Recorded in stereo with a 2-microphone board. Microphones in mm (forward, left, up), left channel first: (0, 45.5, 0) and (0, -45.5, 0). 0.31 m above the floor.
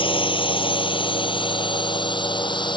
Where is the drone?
75° left (ahead or behind); by 2.8 s 60° left (ahead or behind).